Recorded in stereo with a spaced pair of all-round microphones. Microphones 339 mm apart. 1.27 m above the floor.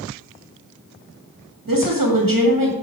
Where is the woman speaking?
75° right (ahead or behind), 1.7 m.